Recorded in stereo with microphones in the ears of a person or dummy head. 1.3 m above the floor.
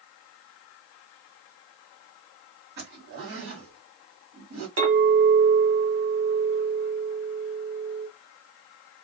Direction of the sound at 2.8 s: 55° right (ahead or behind).